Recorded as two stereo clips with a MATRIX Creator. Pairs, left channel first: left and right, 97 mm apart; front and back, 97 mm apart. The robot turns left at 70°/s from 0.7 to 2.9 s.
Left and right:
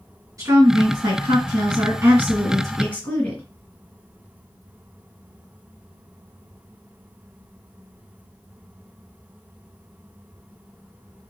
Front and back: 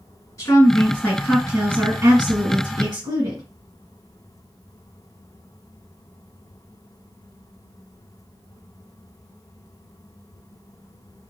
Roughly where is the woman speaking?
Ahead right.